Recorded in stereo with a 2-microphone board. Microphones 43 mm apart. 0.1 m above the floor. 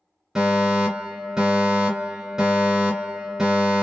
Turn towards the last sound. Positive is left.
turn(degrees=-15)  # may be behind; listen again after turning